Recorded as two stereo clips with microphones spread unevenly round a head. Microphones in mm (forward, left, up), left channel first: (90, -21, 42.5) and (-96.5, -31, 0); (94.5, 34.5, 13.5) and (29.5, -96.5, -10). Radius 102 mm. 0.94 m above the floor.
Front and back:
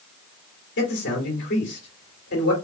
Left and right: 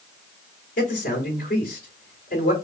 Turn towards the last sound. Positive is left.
turn(degrees=40)